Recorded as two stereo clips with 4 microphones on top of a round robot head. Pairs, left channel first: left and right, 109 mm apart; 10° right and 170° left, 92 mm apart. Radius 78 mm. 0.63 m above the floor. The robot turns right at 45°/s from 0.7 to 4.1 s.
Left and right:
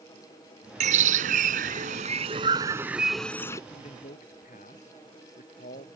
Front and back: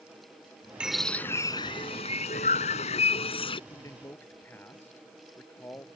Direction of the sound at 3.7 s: 40° left.